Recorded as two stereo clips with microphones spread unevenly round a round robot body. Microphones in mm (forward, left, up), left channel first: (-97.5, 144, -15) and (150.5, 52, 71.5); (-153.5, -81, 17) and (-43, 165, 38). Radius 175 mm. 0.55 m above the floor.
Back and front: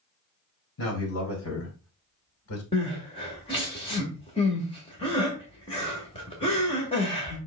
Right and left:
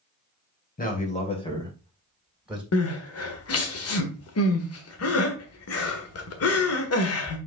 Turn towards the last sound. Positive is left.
turn(degrees=-135)